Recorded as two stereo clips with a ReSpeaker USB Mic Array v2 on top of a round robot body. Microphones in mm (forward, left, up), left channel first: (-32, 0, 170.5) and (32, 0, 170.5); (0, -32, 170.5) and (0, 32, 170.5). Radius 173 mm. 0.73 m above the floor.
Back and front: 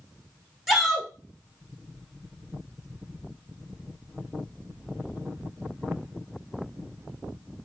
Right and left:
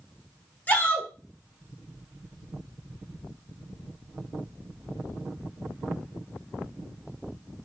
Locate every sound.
0.7 s a shout: 85° right, 1.1 m